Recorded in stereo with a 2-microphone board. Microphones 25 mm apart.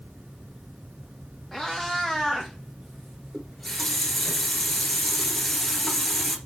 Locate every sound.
1.5 s a cat meowing: centre (ahead or behind), 3 m; by 4.3 s 30° right (ahead or behind), 1.6 m
3.3 s a running tap: centre (ahead or behind), 1.9 m